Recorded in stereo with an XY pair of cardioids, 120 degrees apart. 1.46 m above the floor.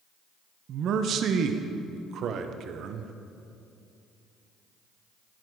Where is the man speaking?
60° right, 0.8 m.